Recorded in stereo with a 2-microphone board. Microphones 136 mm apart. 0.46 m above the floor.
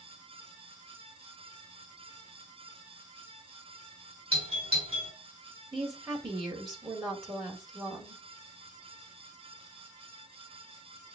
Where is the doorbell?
45° right (ahead or behind), 3 m.